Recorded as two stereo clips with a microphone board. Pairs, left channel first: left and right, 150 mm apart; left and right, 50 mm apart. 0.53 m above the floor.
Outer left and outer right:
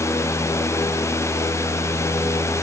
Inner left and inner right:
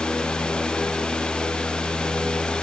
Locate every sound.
Only background noise.